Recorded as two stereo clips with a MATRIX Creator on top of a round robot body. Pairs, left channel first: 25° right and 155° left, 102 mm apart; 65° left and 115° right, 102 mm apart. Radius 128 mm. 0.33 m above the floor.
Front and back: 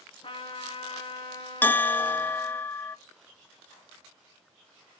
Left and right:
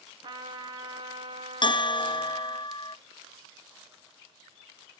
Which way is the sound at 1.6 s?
45° left.